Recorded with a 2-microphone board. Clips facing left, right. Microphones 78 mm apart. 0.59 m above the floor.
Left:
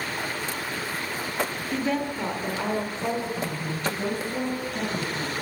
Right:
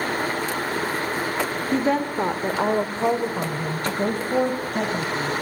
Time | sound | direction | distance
1.7 | a woman speaking | 35° right (ahead or behind) | 1.5 m